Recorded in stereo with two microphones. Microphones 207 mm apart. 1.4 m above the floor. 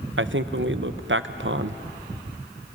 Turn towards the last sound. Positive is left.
turn(degrees=-70)  # may be behind; listen again after turning